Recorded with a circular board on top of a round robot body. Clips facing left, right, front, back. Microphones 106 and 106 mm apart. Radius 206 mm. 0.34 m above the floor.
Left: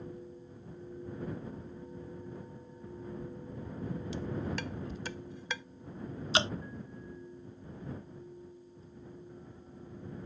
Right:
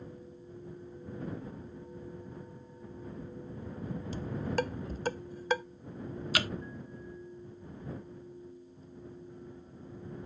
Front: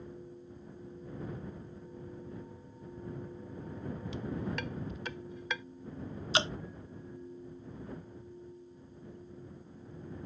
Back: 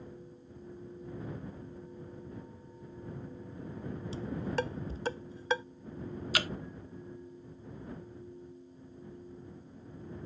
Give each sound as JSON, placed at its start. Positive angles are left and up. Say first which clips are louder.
{"t": 4.1, "sound": "dishes clattering", "louder": "right 6 dB, back 4 dB", "azimuth_deg": -130}
{"t": 6.3, "sound": "dripping", "louder": "left 3 dB, front 4 dB", "azimuth_deg": 45}